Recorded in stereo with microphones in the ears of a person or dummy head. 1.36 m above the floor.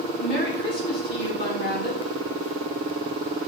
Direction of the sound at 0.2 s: 60° left (ahead or behind).